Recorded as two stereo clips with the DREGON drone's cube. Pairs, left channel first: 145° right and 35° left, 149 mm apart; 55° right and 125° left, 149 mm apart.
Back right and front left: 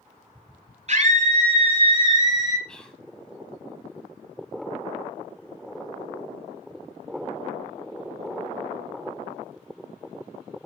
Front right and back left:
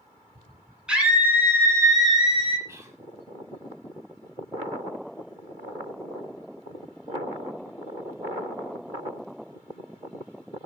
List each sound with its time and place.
0.9 s a scream: 40° left, 1.8 m; by 2.6 s 90° left, 1.7 m
2.7 s whispering: 140° left, 1.3 m